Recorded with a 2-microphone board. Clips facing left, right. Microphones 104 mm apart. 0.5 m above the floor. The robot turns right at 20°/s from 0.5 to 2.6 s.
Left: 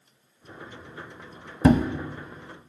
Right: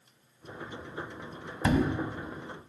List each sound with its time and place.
1.6 s a thud: 50° left (ahead or behind), 0.5 m